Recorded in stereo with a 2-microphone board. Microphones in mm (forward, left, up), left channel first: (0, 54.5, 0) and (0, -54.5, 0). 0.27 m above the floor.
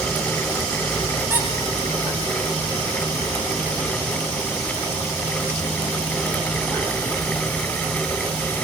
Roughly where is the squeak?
Right.